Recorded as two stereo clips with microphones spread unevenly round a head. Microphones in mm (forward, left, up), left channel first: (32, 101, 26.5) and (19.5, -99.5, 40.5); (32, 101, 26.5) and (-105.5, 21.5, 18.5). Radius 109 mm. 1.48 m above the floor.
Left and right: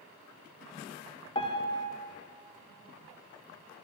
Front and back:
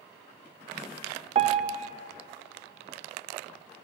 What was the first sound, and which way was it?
A piano, 155° left.